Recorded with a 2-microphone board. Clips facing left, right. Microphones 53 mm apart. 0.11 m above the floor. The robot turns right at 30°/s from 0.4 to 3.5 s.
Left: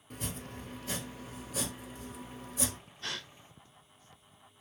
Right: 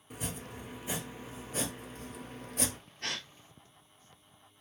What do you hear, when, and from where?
0.1 s chopping: 5° right (ahead or behind), 1.1 m; by 2.8 s 55° right (ahead or behind), 1.1 m
3.0 s a gasp: 55° right (ahead or behind), 0.8 m; by 3.3 s 60° right (ahead or behind), 0.8 m